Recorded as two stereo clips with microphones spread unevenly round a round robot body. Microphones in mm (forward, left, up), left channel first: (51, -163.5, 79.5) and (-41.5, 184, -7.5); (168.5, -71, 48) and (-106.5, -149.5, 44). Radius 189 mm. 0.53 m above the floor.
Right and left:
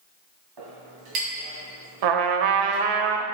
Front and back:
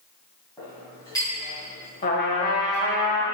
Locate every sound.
0.6 s a clink: 95° left, 2.5 m
2.0 s a trumpet: 85° left, 0.8 m